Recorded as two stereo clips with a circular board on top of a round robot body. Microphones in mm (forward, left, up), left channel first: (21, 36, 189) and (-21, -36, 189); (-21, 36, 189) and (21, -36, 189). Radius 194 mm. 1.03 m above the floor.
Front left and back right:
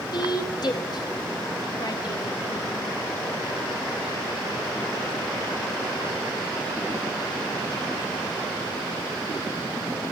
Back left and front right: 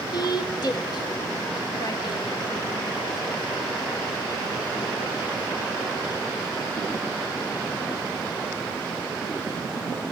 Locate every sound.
0.1 s a woman speaking: 90° left, 1.0 m